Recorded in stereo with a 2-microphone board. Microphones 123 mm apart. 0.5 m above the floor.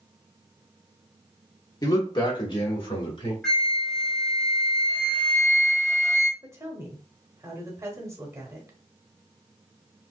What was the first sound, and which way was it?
A man speaking, 30° left (ahead or behind).